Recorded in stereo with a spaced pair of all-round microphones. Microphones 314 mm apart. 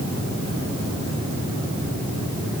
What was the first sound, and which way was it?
Only background noise.